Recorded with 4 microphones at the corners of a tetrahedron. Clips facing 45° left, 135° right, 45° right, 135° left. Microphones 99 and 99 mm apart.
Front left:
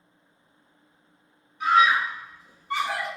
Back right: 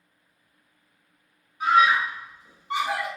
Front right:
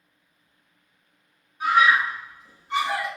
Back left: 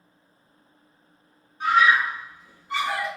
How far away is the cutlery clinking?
I don't hear cutlery clinking.